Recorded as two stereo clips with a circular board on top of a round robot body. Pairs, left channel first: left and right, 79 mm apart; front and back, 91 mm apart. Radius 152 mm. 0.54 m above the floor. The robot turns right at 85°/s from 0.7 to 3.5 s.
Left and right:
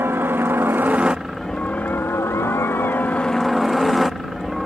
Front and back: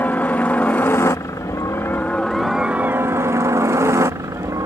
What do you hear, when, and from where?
0.0 s a helicopter: 55° right; by 4.7 s straight behind